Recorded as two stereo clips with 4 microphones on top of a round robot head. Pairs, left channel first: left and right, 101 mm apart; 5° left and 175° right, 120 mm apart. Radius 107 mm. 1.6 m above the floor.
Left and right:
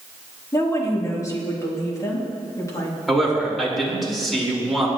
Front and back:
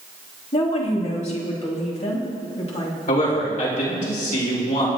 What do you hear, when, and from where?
0.5 s a woman speaking: 30° left, 3.5 m
3.1 s a man speaking: straight ahead, 5 m